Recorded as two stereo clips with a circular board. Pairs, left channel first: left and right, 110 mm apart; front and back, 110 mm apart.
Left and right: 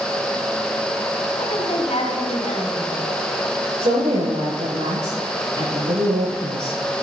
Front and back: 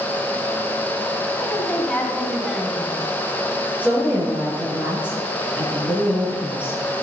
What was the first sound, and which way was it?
A woman speaking, 75° left.